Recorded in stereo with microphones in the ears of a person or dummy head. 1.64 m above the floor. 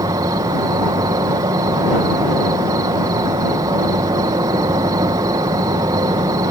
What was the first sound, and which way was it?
An insect, 20° right (ahead or behind).